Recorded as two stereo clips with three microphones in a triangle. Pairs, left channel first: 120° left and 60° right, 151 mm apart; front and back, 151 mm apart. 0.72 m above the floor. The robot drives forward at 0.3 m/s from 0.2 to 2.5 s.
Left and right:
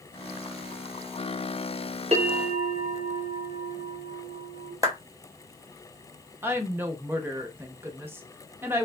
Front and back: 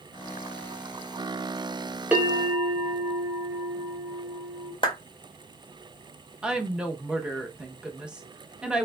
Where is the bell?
100° right, 0.9 m; by 4.7 s 110° right, 0.9 m.